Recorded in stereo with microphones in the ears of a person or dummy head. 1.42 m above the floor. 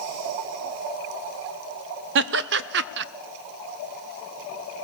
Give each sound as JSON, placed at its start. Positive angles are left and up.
{"t": 2.1, "sound": "laughter", "side_deg": -60, "distance_m": 1.0}